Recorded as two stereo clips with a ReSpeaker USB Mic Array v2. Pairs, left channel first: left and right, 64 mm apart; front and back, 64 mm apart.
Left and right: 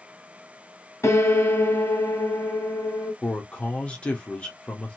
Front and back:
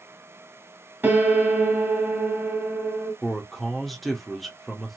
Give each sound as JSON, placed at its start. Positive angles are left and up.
{"t": 1.0, "sound": "a piano", "azimuth_deg": 125, "distance_m": 1.6}
{"t": 3.2, "sound": "a man speaking", "azimuth_deg": 90, "distance_m": 0.8}